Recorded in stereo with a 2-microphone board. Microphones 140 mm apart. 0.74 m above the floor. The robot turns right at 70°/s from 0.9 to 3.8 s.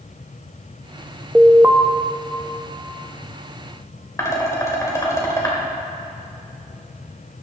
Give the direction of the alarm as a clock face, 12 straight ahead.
6 o'clock.